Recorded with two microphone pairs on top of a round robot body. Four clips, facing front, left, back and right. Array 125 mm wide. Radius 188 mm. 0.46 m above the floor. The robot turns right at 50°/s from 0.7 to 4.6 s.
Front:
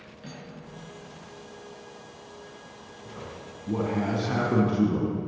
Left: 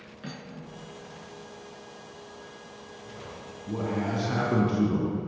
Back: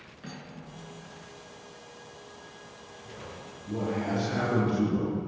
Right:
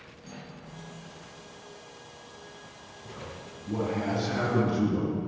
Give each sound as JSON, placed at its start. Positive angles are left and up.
{"t": 0.2, "sound": "cutlery clinking", "azimuth_deg": 115, "distance_m": 6.0}
{"t": 3.0, "sound": "a man speaking", "azimuth_deg": -40, "distance_m": 5.0}